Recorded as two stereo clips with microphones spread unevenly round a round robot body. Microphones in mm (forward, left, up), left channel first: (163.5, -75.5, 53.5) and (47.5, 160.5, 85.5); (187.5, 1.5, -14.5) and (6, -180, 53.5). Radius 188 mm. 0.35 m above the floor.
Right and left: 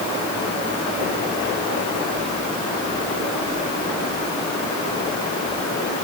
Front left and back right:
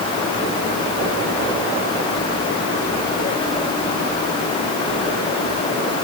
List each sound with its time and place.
Only background noise.